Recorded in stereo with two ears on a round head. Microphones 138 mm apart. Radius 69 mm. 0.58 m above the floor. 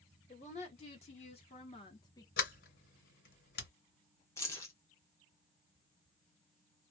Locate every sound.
0.3 s a woman speaking: 45° left (ahead or behind), 1.8 m; by 2.3 s 20° left (ahead or behind), 0.9 m
2.4 s a sliding door: 70° left (ahead or behind), 1.9 m
4.4 s keys jangling: 20° left (ahead or behind), 1.0 m